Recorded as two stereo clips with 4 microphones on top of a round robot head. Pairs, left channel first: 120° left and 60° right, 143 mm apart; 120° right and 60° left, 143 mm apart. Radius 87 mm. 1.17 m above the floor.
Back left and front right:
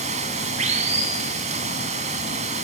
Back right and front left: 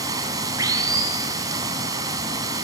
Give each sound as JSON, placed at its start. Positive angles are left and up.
{"t": 0.0, "sound": "running water", "azimuth_deg": -10, "distance_m": 2.5}